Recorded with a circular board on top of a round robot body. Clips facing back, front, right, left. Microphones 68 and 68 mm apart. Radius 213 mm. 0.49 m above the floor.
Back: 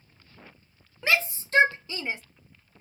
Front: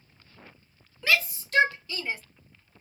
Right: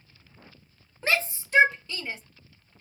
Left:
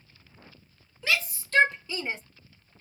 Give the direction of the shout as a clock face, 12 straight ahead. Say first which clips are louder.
Even, right 2 dB; 4 o'clock.